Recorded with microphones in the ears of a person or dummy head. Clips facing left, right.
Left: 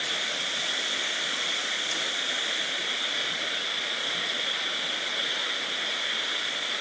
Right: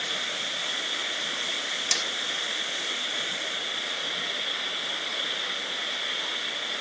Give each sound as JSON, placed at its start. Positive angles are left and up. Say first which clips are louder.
{"t": 0.0, "sound": "an engine running", "louder": "even", "side_deg": 0}
{"t": 1.9, "sound": "hammering", "louder": "right 1 dB", "side_deg": -70}